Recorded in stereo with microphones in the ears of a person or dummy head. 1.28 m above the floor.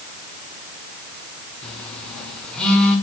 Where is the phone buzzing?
5° left (ahead or behind), 2 m.